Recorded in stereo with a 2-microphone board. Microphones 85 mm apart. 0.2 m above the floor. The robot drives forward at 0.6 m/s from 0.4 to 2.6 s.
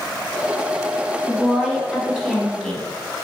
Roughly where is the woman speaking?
Centre.